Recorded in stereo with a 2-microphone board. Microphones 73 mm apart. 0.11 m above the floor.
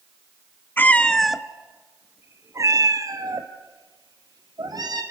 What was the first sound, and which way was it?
A cat meowing, 25° left (ahead or behind).